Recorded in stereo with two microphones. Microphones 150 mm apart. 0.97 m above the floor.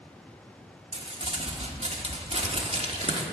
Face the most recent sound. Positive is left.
turn(degrees=-45)  # may be behind; listen again after turning